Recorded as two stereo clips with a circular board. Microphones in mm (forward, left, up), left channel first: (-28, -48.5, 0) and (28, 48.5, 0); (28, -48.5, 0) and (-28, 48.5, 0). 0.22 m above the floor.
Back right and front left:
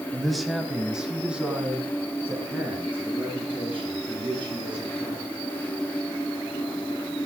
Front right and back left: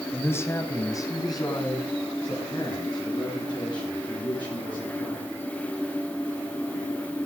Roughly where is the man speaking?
Ahead right.